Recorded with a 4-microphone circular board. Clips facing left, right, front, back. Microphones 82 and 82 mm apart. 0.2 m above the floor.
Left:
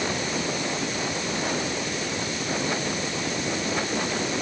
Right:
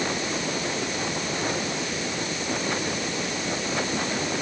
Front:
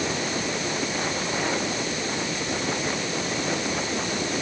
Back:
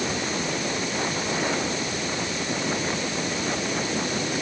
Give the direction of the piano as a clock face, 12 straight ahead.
No piano in this recording.